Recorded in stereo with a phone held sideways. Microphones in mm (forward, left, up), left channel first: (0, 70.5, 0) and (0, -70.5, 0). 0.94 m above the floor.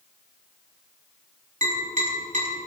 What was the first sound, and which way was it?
Tapping, 60° right (ahead or behind).